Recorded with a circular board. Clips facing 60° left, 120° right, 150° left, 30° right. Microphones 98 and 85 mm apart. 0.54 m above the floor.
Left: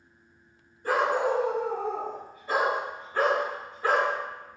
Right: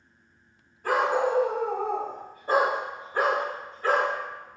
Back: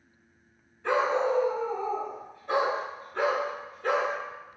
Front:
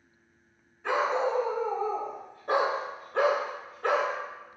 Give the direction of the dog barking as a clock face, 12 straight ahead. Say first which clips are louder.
Right 1 dB, back 2 dB; 4 o'clock.